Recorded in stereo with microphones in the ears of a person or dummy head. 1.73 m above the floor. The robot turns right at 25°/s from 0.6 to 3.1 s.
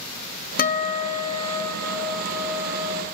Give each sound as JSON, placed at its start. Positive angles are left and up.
{"t": 0.6, "sound": "a guitar", "azimuth_deg": 140, "distance_m": 1.0}